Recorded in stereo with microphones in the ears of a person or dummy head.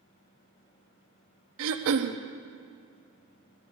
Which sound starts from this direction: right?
Throat clearing, at 1.6 s.